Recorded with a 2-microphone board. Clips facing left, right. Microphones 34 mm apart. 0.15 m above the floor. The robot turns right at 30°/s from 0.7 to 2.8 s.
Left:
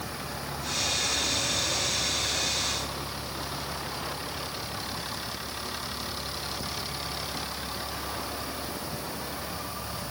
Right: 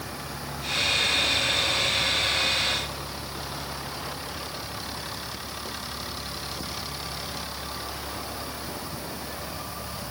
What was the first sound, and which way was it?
Only background noise.